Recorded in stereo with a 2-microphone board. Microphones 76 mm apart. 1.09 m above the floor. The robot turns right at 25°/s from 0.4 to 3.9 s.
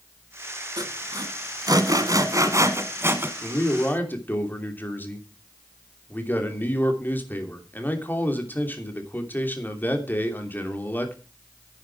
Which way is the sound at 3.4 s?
40° left (ahead or behind).